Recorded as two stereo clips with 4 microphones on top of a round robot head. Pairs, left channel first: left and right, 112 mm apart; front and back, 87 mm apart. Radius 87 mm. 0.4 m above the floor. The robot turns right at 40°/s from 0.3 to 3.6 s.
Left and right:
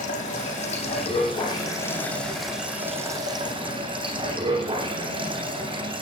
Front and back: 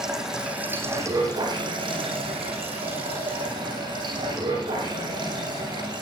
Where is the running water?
95° left, 9 m; by 6.0 s 135° right, 9 m.